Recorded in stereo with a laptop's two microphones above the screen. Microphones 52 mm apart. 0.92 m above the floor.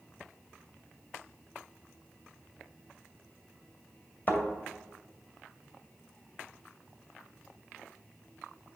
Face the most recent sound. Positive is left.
turn(degrees=40)  # may be behind; listen again after turning